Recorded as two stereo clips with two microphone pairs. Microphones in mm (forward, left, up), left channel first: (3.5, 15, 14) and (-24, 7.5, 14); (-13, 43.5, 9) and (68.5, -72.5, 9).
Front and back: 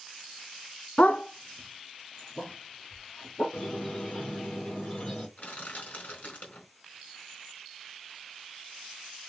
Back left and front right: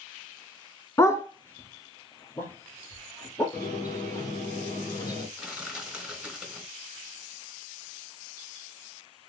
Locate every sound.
1.0 s a dog barking: 55° left, 1.1 m; by 3.4 s 50° left, 4.5 m
3.5 s a squeak: 60° left, 4.5 m
5.4 s crushing: 30° left, 4 m